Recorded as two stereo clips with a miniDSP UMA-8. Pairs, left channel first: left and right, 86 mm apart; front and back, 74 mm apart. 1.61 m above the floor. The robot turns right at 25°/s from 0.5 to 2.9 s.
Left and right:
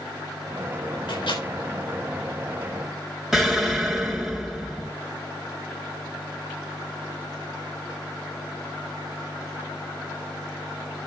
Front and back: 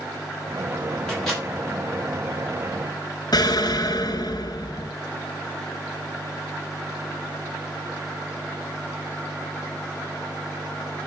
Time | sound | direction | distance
1.1 | a microwave | 75° left | 8.5 m
3.3 | an explosion | 5° right | 2.5 m